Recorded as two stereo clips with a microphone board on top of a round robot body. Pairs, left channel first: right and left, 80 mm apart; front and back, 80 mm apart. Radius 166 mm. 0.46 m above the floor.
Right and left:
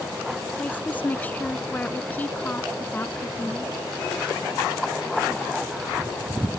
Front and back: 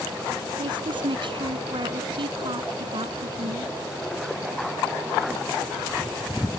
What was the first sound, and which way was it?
A woman speaking, 160° right.